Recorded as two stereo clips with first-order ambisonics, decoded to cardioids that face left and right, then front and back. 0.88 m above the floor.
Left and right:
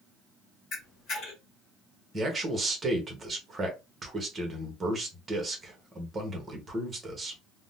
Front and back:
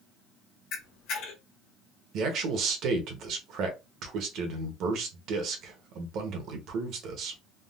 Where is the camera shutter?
35° left, 1.4 m.